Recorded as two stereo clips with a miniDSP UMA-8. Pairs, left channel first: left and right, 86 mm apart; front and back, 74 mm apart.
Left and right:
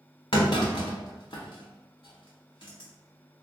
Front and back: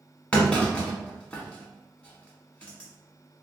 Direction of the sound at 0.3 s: 75° left.